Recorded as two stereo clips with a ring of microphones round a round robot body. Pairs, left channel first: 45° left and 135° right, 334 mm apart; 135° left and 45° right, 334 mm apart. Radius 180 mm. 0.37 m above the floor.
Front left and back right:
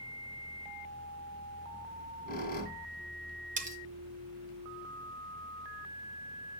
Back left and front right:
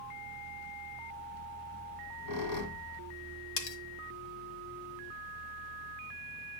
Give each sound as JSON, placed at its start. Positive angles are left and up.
{"t": 1.9, "sound": "a squeak", "azimuth_deg": 110, "distance_m": 2.0}
{"t": 3.6, "sound": "cutlery clinking", "azimuth_deg": 155, "distance_m": 1.4}